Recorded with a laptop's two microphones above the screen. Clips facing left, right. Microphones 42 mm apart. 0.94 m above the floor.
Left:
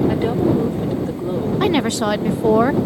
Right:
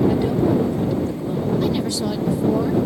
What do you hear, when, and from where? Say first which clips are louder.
0.1 s a woman speaking: left 1 dB; 35° left (ahead or behind)
1.6 s a woman speaking: left 4 dB; 65° left (ahead or behind)